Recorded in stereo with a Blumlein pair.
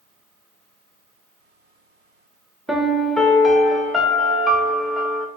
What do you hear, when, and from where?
2.7 s a piano: straight ahead, 0.7 m